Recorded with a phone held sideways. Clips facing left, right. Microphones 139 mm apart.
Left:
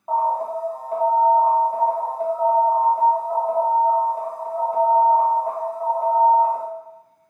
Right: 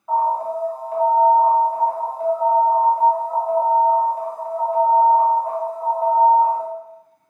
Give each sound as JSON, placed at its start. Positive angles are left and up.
{"t": 0.1, "sound": "an alarm", "side_deg": 40, "distance_m": 1.6}